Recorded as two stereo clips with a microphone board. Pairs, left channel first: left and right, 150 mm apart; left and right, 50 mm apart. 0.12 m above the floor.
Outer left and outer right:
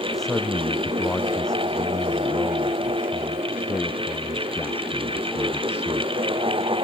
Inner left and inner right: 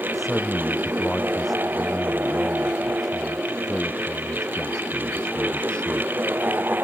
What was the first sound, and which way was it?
A man speaking, centre (ahead or behind).